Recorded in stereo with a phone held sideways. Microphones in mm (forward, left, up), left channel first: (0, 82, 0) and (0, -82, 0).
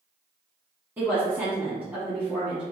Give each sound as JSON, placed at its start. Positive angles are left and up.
{"t": 1.0, "sound": "a woman speaking", "side_deg": -5, "distance_m": 1.4}